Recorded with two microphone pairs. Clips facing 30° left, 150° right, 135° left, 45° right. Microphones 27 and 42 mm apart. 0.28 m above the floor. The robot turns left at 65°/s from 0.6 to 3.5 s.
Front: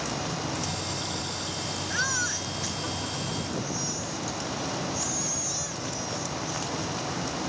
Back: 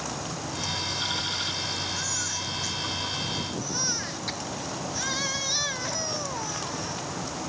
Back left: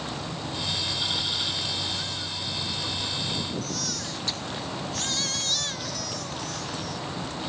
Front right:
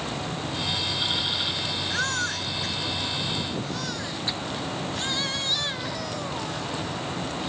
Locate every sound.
1.9 s a baby crying: 10° right; by 7.0 s 115° right